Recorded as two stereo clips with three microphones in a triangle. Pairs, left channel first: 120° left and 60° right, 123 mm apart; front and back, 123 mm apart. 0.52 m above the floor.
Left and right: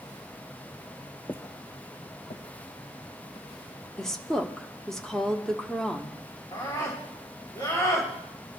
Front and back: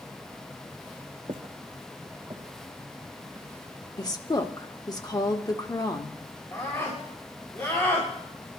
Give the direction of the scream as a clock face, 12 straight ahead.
10 o'clock.